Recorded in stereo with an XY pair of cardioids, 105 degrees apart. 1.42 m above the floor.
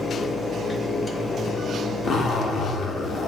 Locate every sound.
0.0 s a fan: 30° left, 0.8 m
2.0 s a zipper: 60° left, 1.0 m